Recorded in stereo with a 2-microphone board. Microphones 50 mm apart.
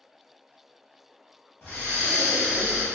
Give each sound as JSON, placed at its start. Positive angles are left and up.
{"t": 1.6, "sound": "breathing", "side_deg": 45, "distance_m": 1.1}